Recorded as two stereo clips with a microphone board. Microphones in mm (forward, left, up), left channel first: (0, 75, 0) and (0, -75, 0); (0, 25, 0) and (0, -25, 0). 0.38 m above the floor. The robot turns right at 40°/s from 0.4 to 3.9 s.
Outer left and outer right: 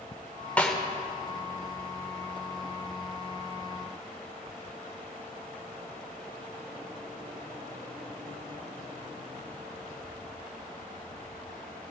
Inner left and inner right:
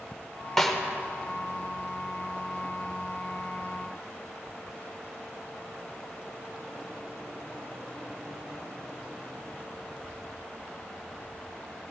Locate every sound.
0.6 s a snare drum: 10° left (ahead or behind), 1.2 m; by 0.8 s 5° left (ahead or behind), 1.2 m